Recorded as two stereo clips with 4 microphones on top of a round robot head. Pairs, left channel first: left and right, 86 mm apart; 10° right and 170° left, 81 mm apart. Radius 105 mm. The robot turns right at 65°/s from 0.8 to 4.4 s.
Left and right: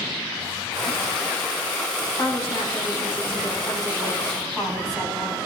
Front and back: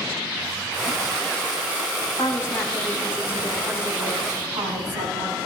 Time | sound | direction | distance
2.2 | a woman speaking | 30° left | 4.5 m